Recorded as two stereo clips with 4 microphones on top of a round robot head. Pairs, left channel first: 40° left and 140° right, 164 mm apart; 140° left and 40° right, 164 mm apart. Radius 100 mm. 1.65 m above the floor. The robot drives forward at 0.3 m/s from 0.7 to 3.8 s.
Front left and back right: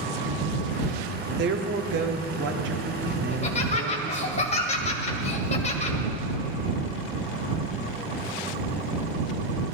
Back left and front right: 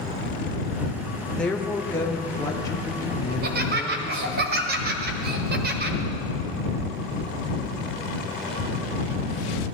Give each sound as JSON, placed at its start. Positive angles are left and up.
{"t": 1.4, "sound": "a woman speaking", "azimuth_deg": -135, "distance_m": 0.9}
{"t": 3.3, "sound": "laughter", "azimuth_deg": -10, "distance_m": 1.5}